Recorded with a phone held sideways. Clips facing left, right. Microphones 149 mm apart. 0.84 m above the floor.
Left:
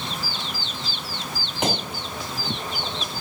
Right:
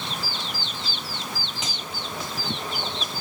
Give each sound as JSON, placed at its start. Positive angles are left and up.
{"t": 1.6, "sound": "a gunshot", "side_deg": 60}